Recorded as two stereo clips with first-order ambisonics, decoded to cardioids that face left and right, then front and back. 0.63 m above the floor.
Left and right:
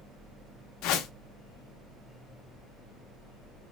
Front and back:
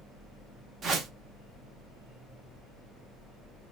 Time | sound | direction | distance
0.8 | a whoosh | 115° left | 0.5 m